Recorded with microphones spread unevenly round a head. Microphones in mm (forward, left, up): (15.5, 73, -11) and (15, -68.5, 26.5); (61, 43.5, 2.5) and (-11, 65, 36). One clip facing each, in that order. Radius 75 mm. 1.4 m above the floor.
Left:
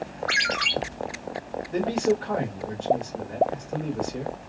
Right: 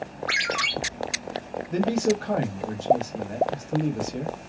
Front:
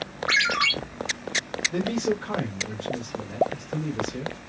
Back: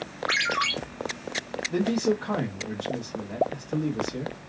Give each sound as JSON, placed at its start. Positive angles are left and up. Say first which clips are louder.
{"t": 0.3, "sound": "a ringtone", "louder": "even, front 3 dB", "azimuth_deg": -25, "distance_m": 1.8}
{"t": 1.7, "sound": "a man speaking", "louder": "even, back 2 dB", "azimuth_deg": -135, "distance_m": 1.0}